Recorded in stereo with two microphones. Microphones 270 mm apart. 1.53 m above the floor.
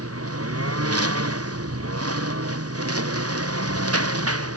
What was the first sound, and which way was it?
A lawn mower, 60° right (ahead or behind).